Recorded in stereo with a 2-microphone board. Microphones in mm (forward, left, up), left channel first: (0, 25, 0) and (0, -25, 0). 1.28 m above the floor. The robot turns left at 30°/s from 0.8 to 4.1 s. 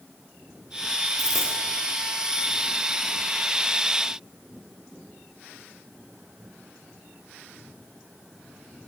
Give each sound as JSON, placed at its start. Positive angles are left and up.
{"t": 1.2, "sound": "a dropped coin", "side_deg": 75, "distance_m": 6.0}